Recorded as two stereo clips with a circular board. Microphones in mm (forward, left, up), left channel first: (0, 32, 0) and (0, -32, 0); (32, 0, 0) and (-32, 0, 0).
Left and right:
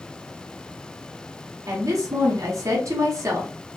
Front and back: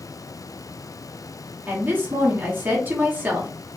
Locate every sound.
1.7 s a woman speaking: 120° right, 0.9 m